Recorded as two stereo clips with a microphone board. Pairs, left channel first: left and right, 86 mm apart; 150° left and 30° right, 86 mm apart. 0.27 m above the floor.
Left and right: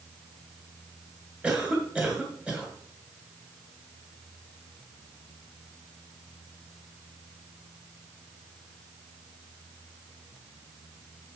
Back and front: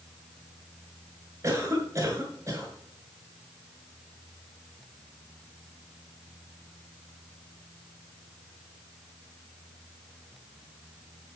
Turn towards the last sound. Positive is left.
turn(degrees=-20)